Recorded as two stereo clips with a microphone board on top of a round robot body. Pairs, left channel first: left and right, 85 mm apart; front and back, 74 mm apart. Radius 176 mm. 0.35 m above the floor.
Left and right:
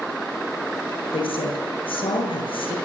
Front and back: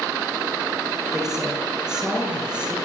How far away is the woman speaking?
About 8 m.